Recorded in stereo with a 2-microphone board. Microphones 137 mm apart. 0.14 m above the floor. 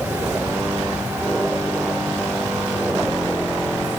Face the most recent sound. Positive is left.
No sound to turn to.